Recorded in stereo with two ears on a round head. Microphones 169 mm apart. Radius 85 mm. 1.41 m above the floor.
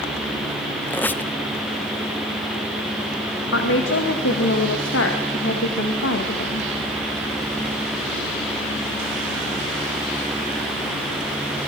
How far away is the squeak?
About 0.6 m.